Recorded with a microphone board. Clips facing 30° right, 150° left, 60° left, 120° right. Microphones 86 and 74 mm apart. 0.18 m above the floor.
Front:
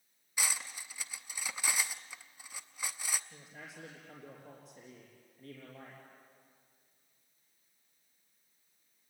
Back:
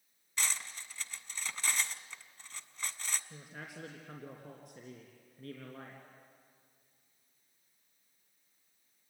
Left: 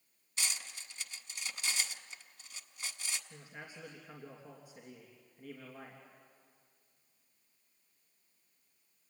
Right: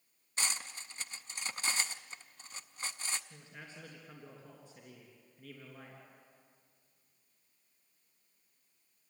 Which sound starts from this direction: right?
Cutlery clinking, at 0.4 s.